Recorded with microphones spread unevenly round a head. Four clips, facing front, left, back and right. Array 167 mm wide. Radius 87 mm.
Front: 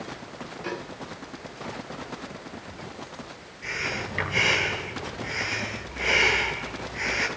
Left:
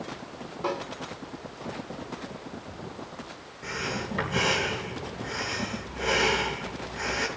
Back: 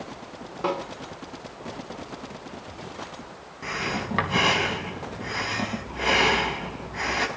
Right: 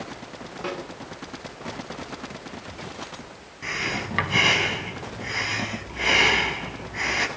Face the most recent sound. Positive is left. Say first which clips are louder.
# right 2 dB, back 3 dB
turn(degrees=-150)